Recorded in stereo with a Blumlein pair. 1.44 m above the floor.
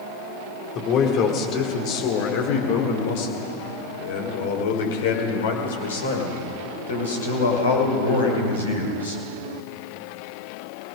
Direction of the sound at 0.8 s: 35° left.